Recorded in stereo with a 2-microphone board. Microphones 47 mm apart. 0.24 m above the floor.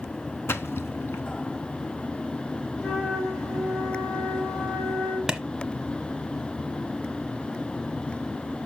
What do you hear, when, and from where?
0.5 s a splash: 60° left (ahead or behind), 0.7 m
2.8 s a flute: 75° left (ahead or behind), 5.5 m
5.3 s a clap: 15° right (ahead or behind), 0.9 m